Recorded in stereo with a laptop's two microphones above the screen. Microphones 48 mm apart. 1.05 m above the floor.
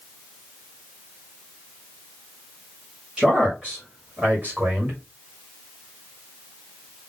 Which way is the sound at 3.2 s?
15° right (ahead or behind).